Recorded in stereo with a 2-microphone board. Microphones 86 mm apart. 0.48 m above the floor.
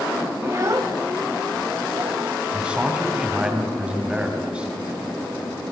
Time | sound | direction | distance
0.4 | a child speaking | 30° right (ahead or behind) | 1.3 m
2.5 | a man speaking | 10° right (ahead or behind) | 4 m